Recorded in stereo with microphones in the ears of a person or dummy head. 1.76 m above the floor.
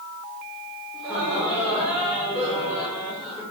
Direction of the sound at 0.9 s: 10° right (ahead or behind).